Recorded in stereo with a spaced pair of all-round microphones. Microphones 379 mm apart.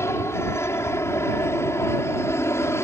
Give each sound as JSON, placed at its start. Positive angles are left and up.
{"t": 0.0, "sound": "an aircraft", "side_deg": 5}